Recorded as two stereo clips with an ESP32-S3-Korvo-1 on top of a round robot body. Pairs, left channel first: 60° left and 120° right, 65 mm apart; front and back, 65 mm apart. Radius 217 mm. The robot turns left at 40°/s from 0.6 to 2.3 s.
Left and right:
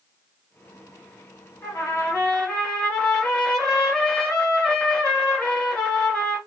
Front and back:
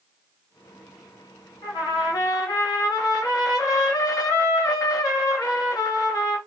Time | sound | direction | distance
1.6 | a trumpet | 15° left | 1.4 m